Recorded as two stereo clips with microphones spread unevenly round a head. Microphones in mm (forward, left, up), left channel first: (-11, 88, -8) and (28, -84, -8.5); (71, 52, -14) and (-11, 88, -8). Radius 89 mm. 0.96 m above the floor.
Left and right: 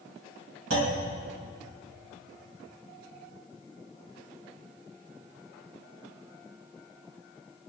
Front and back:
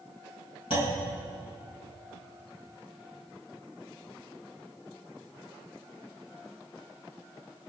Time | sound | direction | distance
0.7 | a clunk | 65° right | 4.5 m